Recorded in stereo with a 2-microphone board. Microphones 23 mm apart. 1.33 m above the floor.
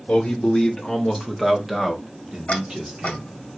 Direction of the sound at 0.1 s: 45° left (ahead or behind).